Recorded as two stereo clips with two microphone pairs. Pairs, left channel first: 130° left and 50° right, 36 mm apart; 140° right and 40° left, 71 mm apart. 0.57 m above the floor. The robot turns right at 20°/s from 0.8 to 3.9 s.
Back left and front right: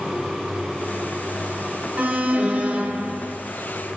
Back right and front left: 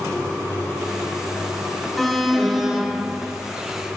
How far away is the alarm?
About 0.6 m.